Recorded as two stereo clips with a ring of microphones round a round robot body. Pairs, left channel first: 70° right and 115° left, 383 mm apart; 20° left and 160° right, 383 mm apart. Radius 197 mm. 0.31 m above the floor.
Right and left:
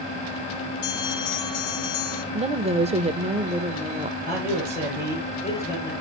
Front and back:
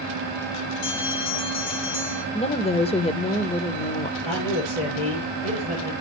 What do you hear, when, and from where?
0.8 s a bell: 25° right, 3 m
2.3 s a woman speaking: 70° left, 0.9 m
4.2 s a man speaking: 5° left, 6 m